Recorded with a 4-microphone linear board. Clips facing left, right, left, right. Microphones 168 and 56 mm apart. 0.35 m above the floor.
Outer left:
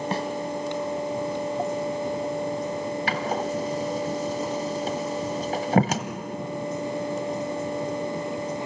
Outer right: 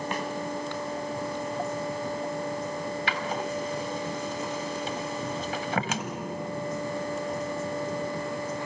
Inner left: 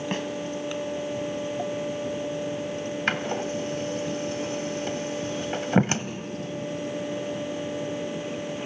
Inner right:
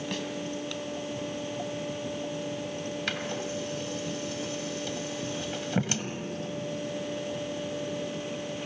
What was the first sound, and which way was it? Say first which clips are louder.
A snare drum: outer left 5 dB, inner left 5 dB; 35° left (ahead or behind).